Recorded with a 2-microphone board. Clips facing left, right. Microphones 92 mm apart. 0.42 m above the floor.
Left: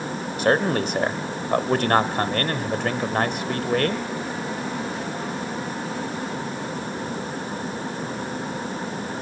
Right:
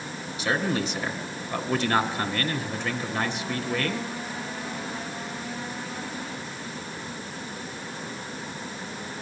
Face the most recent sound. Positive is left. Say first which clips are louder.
# left 6 dB
turn(degrees=50)  # may be behind; listen again after turning